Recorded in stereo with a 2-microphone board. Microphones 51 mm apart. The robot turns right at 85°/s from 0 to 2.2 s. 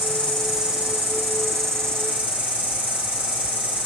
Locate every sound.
0.0 s an insect: 140° left, 5 m; by 3.9 s 35° right, 5 m